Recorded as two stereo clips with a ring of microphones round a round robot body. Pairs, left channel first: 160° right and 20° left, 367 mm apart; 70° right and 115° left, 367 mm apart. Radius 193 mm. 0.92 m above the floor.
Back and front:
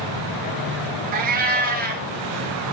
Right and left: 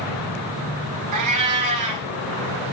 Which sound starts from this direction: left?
A cat meowing, at 1.1 s.